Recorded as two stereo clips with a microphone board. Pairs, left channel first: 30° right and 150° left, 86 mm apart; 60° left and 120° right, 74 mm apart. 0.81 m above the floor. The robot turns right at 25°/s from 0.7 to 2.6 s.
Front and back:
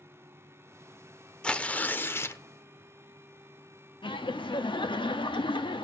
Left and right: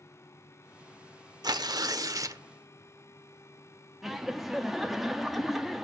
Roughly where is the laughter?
Ahead right.